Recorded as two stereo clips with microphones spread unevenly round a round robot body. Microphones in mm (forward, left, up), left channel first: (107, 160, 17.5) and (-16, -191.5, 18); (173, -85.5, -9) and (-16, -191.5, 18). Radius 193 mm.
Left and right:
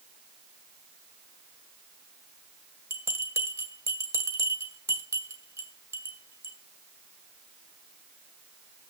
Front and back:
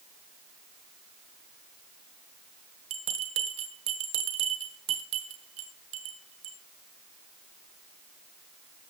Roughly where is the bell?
Behind.